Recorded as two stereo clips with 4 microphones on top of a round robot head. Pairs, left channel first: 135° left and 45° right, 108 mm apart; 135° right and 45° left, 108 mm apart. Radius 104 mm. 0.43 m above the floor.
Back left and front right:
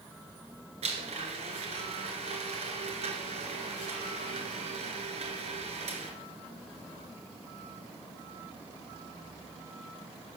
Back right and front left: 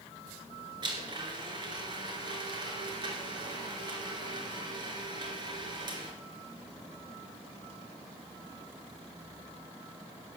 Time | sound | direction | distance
0.8 | a blender | 10° right | 2.5 m